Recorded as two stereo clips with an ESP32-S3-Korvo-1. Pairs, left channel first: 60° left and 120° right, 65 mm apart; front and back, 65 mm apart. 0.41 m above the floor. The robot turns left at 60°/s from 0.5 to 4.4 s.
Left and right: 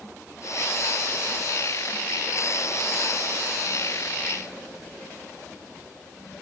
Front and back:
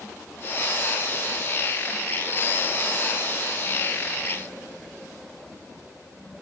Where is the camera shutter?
No camera shutter in this recording.